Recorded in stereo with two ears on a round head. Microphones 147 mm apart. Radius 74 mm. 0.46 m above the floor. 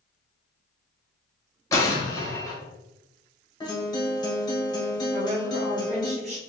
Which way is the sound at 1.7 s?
20° left (ahead or behind).